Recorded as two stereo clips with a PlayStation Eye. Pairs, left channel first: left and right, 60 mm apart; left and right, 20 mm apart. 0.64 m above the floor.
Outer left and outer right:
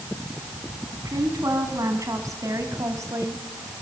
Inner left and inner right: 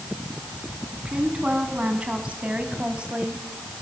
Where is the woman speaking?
80° right, 5.5 m; by 3.4 s 65° right (ahead or behind), 3.5 m.